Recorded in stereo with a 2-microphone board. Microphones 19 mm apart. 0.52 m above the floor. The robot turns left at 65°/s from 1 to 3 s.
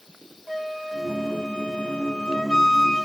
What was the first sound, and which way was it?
A flute, 160° left.